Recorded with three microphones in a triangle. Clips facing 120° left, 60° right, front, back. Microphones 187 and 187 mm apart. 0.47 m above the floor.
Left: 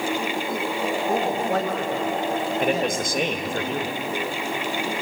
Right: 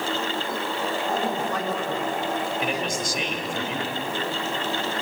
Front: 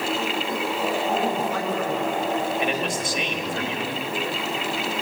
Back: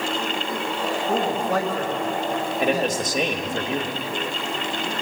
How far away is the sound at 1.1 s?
About 8.5 m.